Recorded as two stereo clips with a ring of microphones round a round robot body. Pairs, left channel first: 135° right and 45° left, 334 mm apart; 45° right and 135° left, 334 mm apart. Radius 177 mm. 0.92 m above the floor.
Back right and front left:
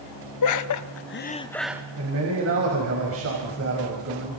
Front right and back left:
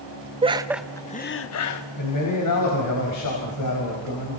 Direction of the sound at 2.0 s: 5° right.